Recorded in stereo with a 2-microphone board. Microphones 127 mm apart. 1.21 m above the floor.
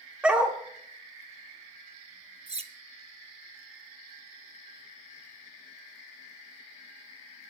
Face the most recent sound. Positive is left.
turn(degrees=-50)  # may be behind; listen again after turning